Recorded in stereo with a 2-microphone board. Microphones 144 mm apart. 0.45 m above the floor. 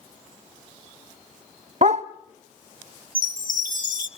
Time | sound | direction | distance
1.8 | a dog barking | 55° right (ahead or behind) | 0.8 m
3.1 | a chime | 70° right (ahead or behind) | 1.2 m